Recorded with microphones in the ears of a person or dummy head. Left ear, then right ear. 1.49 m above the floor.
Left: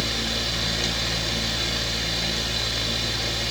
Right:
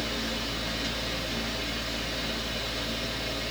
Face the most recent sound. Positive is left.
turn(degrees=35)  # may be behind; listen again after turning